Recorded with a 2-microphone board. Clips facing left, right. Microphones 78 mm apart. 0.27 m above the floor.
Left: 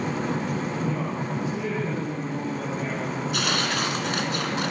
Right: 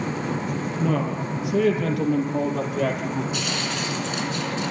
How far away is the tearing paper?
About 2.5 m.